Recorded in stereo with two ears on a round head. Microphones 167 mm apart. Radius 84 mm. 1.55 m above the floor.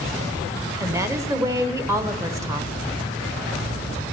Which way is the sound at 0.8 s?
15° right (ahead or behind).